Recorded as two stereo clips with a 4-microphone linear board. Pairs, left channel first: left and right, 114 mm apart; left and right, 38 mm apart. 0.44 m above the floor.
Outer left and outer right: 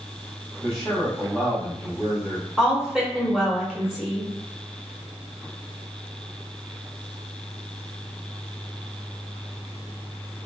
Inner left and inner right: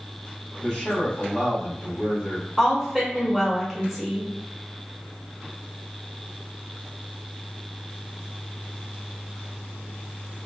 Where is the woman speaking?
5° right (ahead or behind), 1.4 m.